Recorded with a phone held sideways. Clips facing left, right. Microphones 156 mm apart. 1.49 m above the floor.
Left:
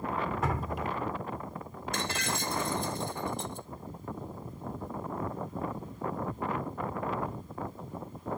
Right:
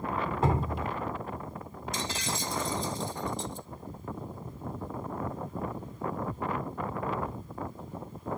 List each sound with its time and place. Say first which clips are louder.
0.4 s dripping: right 3 dB; 30° right (ahead or behind)
1.9 s breaking glass: left 1 dB; 65° left (ahead or behind)